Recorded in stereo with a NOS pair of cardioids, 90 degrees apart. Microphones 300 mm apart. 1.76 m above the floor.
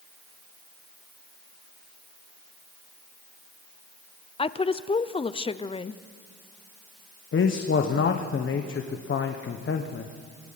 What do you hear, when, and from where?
4.4 s a woman speaking: 20° left, 0.8 m
7.3 s a man speaking: 40° left, 1.4 m